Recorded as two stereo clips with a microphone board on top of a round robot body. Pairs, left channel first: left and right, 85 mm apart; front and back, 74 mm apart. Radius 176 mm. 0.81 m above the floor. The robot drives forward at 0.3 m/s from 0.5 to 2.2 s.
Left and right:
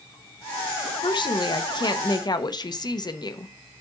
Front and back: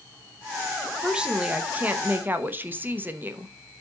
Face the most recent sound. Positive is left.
turn(degrees=120)